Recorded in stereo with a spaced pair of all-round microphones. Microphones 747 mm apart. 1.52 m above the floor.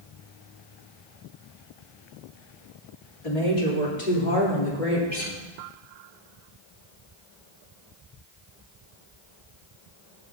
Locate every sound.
3.2 s a woman speaking: 55° left (ahead or behind), 3 m; by 5.0 s 85° left, 4 m
5.1 s a guitar: 10° right (ahead or behind), 6 m